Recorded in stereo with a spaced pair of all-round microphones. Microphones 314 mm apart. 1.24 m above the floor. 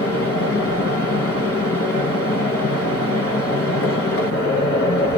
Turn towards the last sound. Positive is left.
turn(degrees=50)  # may be behind; listen again after turning